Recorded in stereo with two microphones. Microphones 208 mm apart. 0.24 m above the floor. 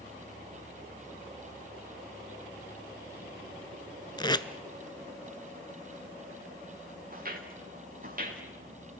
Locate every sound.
4.2 s tape being pulled: 20° left (ahead or behind), 0.8 m
7.1 s footsteps: 45° right (ahead or behind), 4.5 m; by 8.4 s 40° right (ahead or behind), 5.5 m